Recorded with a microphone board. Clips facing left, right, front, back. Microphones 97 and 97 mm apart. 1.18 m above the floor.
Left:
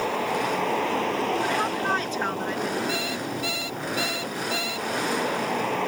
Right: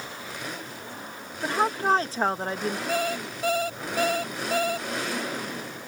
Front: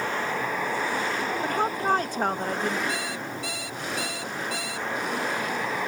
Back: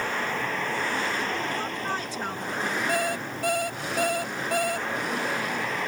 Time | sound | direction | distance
0.0 | a vehicle | 80° left | ?
1.4 | a woman speaking | 35° right | ?
2.9 | an alarm clock | 140° right | ?